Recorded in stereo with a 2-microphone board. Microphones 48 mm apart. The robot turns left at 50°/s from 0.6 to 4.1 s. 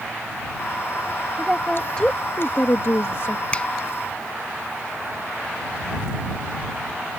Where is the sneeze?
I don't hear a sneeze.